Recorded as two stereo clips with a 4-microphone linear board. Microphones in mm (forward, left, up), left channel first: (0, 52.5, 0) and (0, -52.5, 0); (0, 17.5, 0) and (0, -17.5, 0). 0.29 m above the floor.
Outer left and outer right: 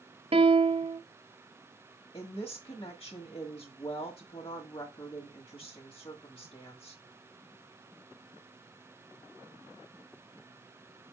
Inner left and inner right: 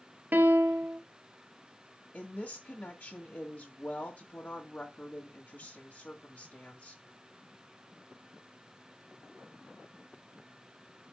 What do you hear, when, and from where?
0.3 s a piano: 60° right (ahead or behind), 0.7 m
2.1 s a woman speaking: 50° left (ahead or behind), 1.6 m